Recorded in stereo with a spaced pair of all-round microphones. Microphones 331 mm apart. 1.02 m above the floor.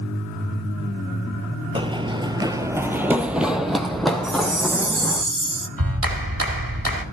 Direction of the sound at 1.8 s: 15° right (ahead or behind).